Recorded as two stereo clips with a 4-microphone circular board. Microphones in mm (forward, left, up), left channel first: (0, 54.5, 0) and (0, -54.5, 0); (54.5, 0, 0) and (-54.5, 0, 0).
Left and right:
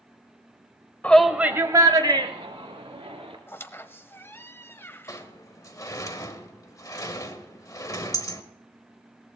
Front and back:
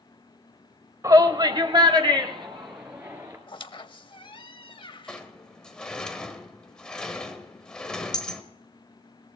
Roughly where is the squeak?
Ahead left.